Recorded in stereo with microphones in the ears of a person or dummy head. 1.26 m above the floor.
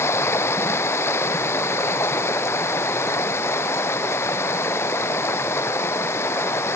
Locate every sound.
0.0 s running water: 15° left (ahead or behind)